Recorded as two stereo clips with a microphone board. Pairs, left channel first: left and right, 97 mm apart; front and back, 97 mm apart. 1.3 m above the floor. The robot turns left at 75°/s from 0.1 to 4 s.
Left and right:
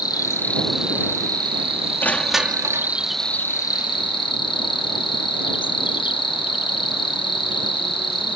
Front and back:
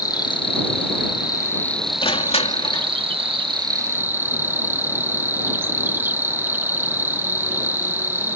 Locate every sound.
0.0 s an insect: 45° left; by 8.4 s 115° left
2.0 s crushing: 20° left; by 2.9 s 45° right